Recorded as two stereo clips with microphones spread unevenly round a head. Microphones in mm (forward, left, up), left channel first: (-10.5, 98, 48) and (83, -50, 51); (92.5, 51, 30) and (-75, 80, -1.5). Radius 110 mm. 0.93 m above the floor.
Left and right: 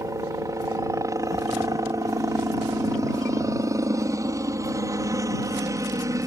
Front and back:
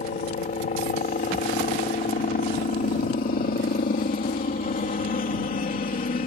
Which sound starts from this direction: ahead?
A helicopter, at 0.0 s.